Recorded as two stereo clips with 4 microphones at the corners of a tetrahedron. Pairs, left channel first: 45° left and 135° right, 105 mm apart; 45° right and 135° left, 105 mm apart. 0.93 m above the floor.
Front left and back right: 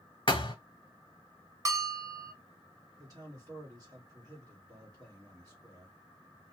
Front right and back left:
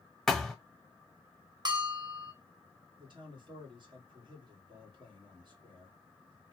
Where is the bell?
170° left, 0.6 m.